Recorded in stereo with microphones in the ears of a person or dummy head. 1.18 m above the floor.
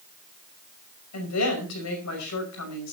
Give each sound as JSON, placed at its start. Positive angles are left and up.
{"t": 1.1, "sound": "a woman speaking", "side_deg": 90, "distance_m": 5.5}